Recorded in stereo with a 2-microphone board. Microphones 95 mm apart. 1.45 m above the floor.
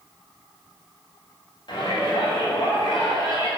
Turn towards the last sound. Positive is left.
turn(degrees=70)  # may be behind; listen again after turning